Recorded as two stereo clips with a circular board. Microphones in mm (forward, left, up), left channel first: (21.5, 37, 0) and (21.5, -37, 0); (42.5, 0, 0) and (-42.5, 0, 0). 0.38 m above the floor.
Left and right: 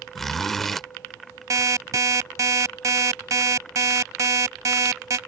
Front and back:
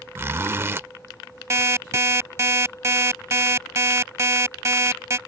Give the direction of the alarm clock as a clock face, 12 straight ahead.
4 o'clock.